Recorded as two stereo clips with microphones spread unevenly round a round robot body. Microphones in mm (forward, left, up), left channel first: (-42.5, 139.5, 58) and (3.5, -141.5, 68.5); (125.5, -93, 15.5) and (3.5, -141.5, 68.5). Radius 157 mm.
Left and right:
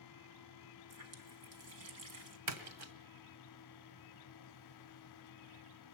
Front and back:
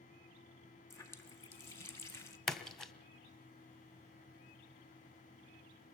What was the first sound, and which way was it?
A running tap, 40° right.